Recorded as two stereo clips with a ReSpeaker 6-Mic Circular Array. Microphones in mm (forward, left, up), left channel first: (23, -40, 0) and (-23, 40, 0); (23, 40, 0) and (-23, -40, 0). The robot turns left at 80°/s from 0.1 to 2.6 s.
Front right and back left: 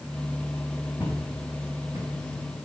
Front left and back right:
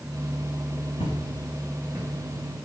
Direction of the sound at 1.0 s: 40° left.